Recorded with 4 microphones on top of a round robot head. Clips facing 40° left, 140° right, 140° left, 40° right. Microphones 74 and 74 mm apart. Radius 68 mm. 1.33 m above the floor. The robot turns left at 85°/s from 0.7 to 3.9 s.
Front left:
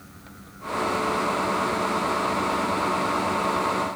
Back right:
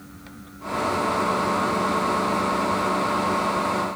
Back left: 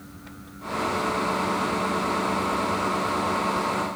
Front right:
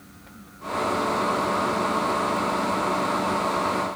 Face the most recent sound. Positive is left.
No sound to turn to.